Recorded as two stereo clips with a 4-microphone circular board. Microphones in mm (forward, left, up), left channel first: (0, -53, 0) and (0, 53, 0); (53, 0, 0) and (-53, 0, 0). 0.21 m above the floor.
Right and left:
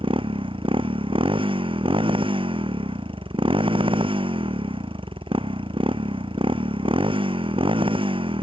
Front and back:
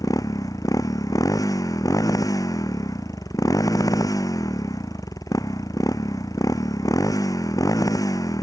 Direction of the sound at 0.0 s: 55° left.